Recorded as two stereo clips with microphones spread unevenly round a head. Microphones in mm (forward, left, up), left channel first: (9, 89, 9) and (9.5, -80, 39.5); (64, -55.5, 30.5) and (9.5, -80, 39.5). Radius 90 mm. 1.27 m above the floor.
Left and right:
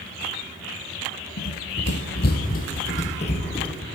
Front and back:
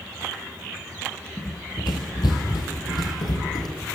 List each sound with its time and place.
1.4 s running footsteps: 80° left, 2.5 m; by 3.7 s 25° left, 3.5 m